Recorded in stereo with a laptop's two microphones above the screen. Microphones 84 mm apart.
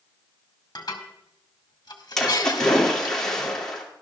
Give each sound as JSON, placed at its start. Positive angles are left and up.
{"t": 0.8, "sound": "dishes clattering", "side_deg": 60, "distance_m": 1.9}
{"t": 2.2, "sound": "a splash", "side_deg": 10, "distance_m": 2.0}